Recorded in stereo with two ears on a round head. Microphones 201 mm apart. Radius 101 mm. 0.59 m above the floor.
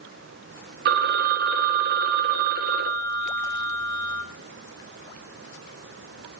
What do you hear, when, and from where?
0.8 s a phone ringing: 45° right (ahead or behind), 0.7 m